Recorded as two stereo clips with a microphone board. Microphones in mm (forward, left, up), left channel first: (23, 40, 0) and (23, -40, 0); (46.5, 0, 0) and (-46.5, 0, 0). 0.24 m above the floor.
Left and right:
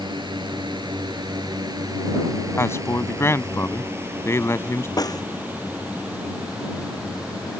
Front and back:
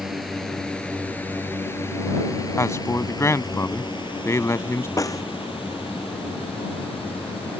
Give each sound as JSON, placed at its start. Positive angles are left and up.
{"t": 0.0, "sound": "a drone", "azimuth_deg": -90}
{"t": 2.6, "sound": "a man speaking", "azimuth_deg": 45}
{"t": 5.0, "sound": "a snare drum", "azimuth_deg": 50}